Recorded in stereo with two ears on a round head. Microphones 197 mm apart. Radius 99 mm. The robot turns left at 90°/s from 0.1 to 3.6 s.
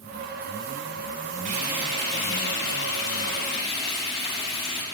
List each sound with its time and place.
1.4 s frying: 140° right, 5 m; by 4.8 s 25° left, 5 m